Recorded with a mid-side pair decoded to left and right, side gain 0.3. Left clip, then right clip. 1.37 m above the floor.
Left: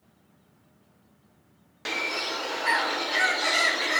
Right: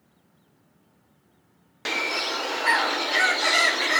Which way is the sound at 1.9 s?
40° right.